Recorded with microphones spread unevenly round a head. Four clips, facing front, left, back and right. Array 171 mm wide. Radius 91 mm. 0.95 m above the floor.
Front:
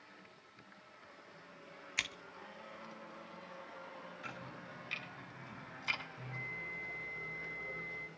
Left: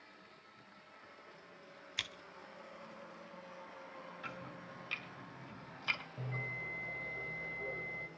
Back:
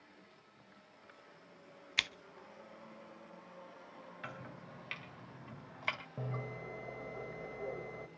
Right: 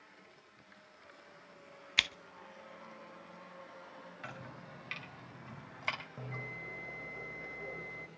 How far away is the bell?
About 1.4 m.